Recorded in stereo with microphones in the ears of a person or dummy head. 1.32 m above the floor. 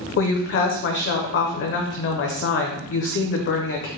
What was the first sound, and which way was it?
A woman speaking, 60° left (ahead or behind).